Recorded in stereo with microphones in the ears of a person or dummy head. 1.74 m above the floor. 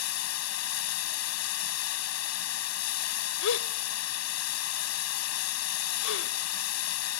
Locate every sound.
0.0 s running water: 80° left
3.4 s a gasp: 80° left